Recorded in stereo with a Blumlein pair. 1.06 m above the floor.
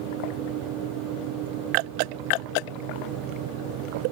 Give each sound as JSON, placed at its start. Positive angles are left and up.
{"t": 0.0, "sound": "a fan", "azimuth_deg": -40}